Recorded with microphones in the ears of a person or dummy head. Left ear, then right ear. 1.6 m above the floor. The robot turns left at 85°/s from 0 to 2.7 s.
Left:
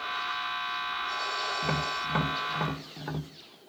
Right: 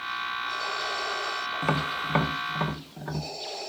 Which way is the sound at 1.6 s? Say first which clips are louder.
Right 2 dB; 55° right (ahead or behind).